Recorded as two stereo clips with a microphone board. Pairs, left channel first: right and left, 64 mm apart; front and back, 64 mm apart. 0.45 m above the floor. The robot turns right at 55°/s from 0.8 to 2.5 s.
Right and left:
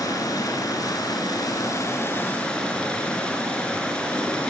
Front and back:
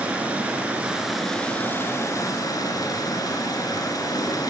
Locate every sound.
0.0 s running water: 110° right, 5 m; by 4.5 s 15° right, 5 m